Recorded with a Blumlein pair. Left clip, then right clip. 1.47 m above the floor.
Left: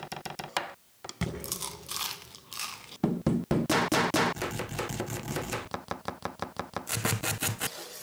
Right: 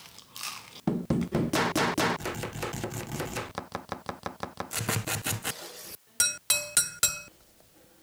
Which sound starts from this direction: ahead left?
A thud, at 1.2 s.